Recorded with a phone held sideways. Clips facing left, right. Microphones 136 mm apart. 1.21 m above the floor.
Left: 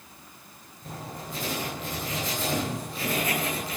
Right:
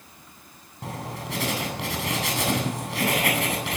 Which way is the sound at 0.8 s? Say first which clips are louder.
Right 5 dB; 75° right (ahead or behind).